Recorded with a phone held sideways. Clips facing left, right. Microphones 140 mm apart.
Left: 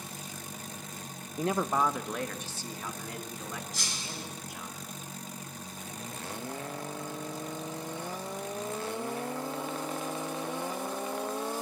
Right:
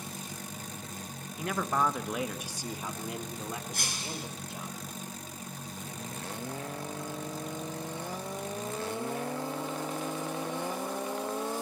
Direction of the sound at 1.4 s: 40° left (ahead or behind).